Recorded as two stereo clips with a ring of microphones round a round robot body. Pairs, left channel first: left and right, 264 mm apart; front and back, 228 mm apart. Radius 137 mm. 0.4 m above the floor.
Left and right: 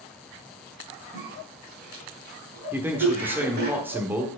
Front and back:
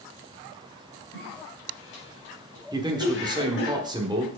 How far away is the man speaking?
About 1.1 m.